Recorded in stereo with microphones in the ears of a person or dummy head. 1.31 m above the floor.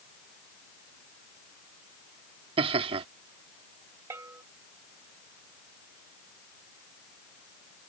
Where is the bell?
15° right (ahead or behind).